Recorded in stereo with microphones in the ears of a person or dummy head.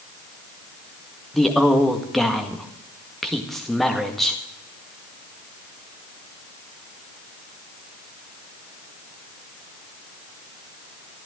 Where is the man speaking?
Centre (ahead or behind), 1.7 m.